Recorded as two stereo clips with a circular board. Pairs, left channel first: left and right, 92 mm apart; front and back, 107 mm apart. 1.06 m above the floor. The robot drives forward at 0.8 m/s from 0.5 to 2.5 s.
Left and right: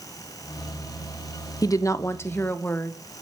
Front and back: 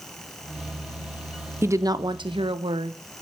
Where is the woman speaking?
120° left, 0.7 m; by 3.0 s 155° left, 1.2 m.